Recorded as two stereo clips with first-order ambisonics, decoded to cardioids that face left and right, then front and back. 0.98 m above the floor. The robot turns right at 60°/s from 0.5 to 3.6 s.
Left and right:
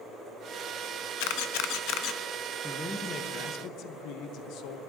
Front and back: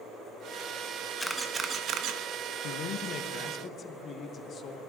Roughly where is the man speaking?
Ahead.